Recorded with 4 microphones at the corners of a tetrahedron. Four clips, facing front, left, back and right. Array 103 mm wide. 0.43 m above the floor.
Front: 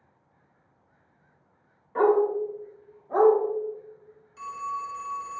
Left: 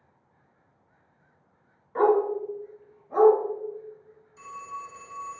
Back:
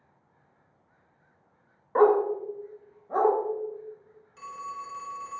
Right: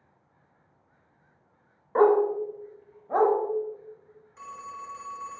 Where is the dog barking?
135° right, 0.6 m; by 3.4 s 85° right, 1.0 m.